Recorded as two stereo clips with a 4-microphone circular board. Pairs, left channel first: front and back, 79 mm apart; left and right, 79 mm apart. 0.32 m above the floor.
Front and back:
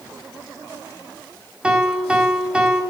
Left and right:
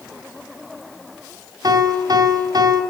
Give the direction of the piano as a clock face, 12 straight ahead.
3 o'clock.